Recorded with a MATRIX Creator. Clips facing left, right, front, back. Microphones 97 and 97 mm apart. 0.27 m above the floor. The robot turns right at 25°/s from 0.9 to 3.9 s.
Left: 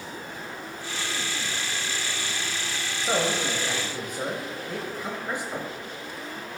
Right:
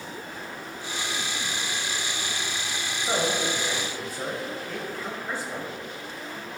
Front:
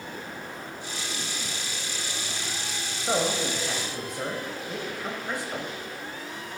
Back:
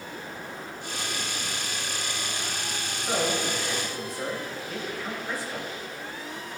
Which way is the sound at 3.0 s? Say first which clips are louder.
Left 1 dB, front 1 dB; 20° left.